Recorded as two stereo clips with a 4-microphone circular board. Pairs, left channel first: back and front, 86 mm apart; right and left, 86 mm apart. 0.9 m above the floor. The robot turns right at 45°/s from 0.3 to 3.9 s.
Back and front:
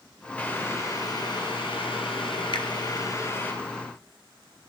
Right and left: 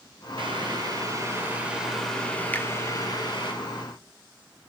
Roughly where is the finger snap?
Behind.